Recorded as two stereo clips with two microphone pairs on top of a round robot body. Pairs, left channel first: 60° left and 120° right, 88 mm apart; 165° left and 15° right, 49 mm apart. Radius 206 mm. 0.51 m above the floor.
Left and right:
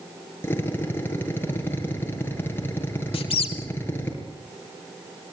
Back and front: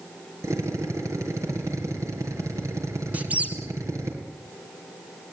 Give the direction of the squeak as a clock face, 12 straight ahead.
10 o'clock.